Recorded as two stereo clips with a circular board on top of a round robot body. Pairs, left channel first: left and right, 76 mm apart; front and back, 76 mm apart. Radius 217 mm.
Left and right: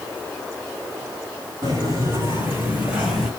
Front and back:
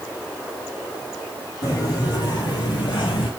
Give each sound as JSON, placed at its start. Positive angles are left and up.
{"t": 1.6, "sound": "footsteps", "azimuth_deg": -40, "distance_m": 2.5}